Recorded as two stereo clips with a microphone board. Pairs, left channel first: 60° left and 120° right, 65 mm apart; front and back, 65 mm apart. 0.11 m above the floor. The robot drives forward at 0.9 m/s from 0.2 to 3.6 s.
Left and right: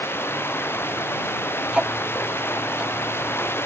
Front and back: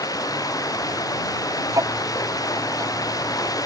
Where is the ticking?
165° left; by 3.7 s 170° left.